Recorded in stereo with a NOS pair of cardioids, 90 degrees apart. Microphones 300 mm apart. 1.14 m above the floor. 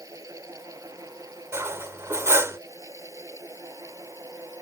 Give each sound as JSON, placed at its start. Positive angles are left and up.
{"t": 0.0, "sound": "a fan", "azimuth_deg": -10}
{"t": 1.5, "sound": "cutlery clinking", "azimuth_deg": -10}